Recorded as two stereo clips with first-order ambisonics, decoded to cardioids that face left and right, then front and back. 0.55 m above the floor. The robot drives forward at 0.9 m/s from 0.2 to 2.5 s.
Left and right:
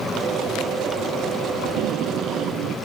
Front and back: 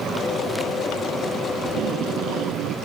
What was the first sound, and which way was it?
Tape being pulled, 135° right.